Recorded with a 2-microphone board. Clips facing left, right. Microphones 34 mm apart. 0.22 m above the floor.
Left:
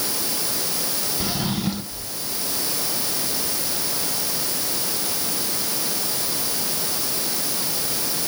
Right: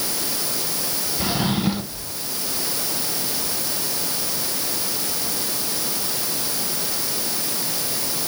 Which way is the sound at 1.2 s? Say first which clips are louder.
Right 4 dB; 15° right (ahead or behind).